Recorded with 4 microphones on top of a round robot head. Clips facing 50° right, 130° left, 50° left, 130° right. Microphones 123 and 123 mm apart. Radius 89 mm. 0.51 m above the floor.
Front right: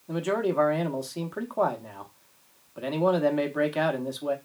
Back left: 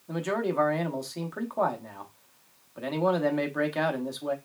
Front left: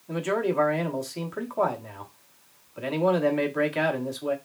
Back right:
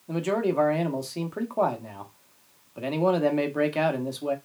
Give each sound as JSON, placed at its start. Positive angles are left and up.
{"t": 0.1, "sound": "a man speaking", "azimuth_deg": -130, "distance_m": 1.0}